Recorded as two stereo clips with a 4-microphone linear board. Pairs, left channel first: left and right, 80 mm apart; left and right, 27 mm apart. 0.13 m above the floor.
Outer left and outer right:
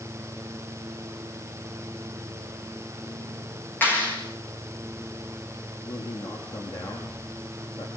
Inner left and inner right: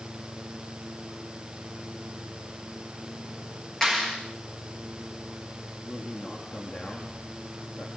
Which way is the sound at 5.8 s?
65° left (ahead or behind).